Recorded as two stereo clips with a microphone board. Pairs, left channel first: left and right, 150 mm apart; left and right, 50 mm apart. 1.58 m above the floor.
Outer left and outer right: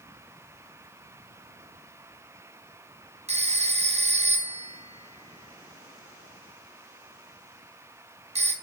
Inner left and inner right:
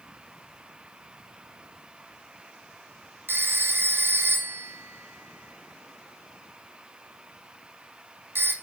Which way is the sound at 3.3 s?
45° right (ahead or behind).